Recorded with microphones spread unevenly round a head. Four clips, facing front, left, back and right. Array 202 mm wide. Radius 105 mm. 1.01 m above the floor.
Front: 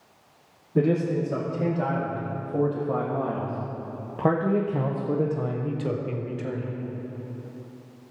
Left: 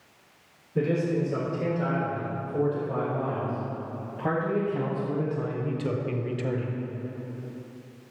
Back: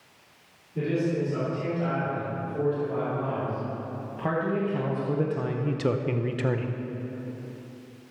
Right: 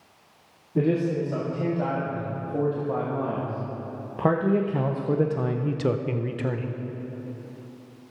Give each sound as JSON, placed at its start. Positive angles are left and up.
{"t": 0.8, "sound": "a man speaking", "azimuth_deg": -35, "distance_m": 3.0}